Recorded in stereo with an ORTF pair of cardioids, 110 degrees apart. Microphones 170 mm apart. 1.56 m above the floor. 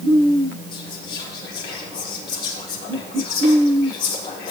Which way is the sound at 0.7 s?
65° left.